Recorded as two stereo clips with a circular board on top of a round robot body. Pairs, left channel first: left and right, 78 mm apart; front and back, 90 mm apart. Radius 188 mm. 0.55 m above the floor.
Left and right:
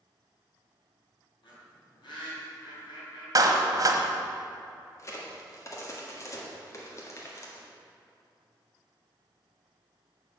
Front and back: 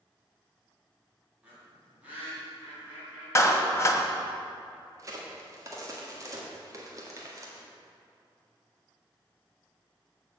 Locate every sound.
1.4 s a bird: 105° left, 3 m
3.4 s a clap: 55° right, 1.5 m
5.0 s a crack: 135° left, 2.0 m